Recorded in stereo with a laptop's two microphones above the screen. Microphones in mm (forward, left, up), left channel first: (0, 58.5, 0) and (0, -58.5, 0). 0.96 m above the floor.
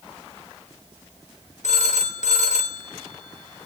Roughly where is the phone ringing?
Left.